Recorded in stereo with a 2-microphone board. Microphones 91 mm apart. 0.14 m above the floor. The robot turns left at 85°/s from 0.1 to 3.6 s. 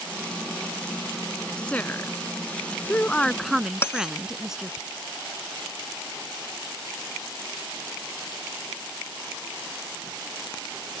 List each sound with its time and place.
1.6 s a woman speaking: 160° left; by 4.8 s 10° right
3.8 s a bell: 30° left (ahead or behind)